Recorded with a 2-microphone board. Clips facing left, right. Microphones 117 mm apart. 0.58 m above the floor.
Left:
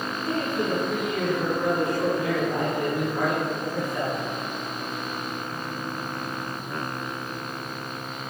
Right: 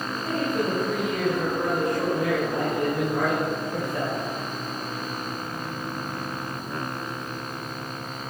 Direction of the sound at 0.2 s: 50° right (ahead or behind).